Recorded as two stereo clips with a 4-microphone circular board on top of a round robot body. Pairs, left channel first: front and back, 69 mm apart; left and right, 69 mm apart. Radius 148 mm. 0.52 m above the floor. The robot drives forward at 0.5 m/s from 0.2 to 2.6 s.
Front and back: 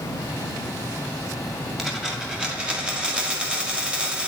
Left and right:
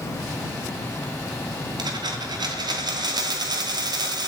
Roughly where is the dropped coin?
Right.